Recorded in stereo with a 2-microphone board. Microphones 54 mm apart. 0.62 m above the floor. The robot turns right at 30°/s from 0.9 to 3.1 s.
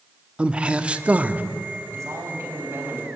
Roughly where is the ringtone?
No ringtone in this recording.